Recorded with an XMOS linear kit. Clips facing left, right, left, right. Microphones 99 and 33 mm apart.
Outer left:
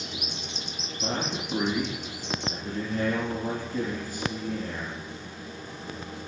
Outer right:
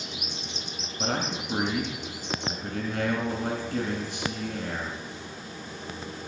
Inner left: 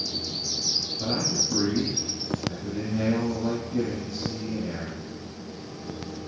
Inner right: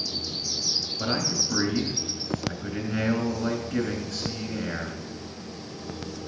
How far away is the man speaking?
About 3.5 m.